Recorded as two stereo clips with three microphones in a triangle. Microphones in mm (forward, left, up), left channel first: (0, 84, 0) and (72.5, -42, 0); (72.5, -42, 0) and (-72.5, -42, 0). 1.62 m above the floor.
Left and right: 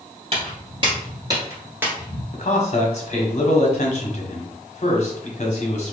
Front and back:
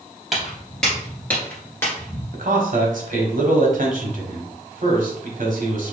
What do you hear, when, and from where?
0.3 s footsteps: 90° right, 2 m; by 2.2 s 20° left, 1.7 m
2.3 s a man speaking: 155° left, 1.2 m